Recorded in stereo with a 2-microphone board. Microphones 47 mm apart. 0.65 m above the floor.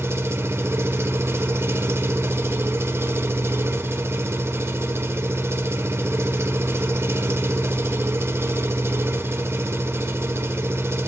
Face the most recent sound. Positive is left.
turn(degrees=-65)  # may be behind; listen again after turning